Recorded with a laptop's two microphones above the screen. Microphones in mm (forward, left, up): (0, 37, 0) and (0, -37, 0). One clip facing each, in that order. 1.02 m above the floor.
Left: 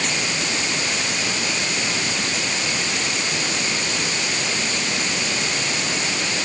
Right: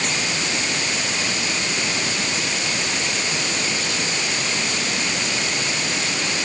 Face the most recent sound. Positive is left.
No sound to turn to.